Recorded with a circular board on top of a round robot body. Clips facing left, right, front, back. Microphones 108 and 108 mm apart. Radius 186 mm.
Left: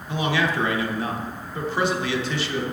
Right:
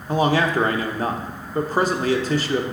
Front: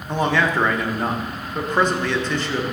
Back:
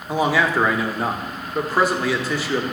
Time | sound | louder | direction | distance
0.1 | a man speaking | right 5 dB, back 1 dB | 100° right | 1.0 m